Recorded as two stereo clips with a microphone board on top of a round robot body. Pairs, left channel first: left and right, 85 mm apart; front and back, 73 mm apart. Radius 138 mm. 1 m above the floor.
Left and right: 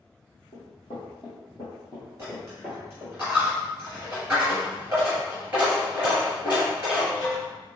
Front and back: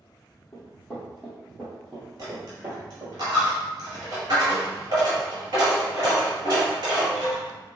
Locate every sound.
0.5 s running footsteps: 65° left, 1.4 m; by 3.1 s 160° right, 1.2 m
2.2 s a dropped coin: 160° right, 1.7 m